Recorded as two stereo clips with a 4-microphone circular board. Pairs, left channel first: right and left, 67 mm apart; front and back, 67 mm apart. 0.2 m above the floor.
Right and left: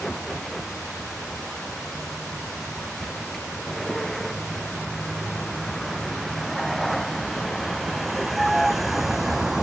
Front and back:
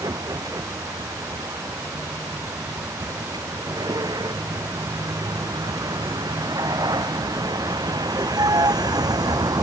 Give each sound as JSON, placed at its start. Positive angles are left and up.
{"t": 0.0, "sound": "a vehicle", "azimuth_deg": -175}